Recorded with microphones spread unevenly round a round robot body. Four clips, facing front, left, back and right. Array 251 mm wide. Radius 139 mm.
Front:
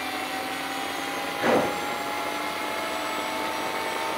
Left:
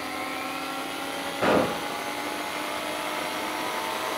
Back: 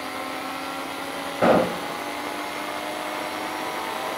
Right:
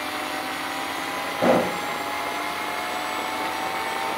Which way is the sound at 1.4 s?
160° right.